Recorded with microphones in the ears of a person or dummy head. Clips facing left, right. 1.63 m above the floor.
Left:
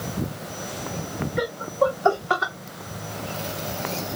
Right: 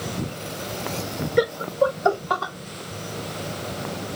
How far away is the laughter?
About 0.6 m.